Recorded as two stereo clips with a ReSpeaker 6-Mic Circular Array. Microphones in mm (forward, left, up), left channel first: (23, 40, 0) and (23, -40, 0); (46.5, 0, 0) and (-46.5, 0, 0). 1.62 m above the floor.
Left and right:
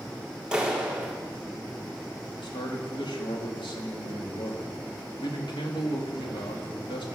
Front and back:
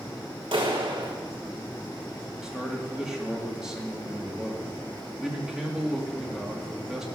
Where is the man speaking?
95° left, 3.5 m.